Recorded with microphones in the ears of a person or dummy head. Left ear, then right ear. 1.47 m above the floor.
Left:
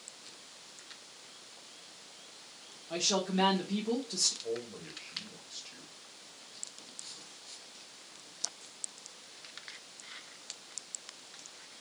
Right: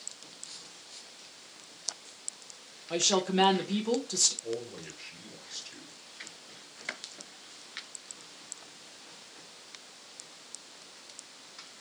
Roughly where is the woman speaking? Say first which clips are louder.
Right 4 dB; right.